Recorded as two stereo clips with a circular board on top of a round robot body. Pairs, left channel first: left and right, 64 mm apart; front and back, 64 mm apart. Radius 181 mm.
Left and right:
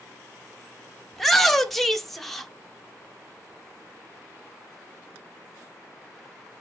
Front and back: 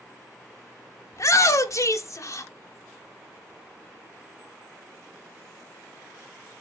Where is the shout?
5° left, 1.0 m.